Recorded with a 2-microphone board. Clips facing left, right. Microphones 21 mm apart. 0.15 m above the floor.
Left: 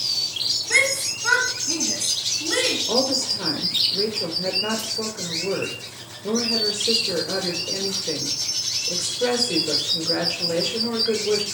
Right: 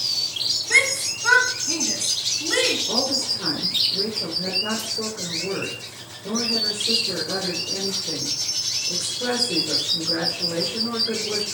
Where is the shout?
5° right (ahead or behind), 1.7 m; by 2.8 s 10° right (ahead or behind), 2.5 m.